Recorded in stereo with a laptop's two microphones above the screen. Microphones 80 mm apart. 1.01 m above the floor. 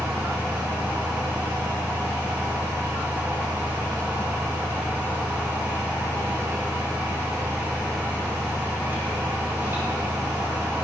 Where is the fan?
30° right (ahead or behind), 2.0 m.